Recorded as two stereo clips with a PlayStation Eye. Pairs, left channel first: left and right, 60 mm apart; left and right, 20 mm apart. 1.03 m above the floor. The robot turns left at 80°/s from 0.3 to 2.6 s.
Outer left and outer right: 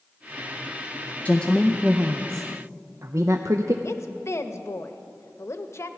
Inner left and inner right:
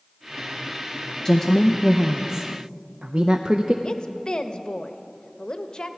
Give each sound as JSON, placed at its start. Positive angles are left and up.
{"t": 1.2, "sound": "a woman speaking", "azimuth_deg": 35, "distance_m": 0.5}
{"t": 3.8, "sound": "a woman speaking", "side_deg": 50, "distance_m": 0.8}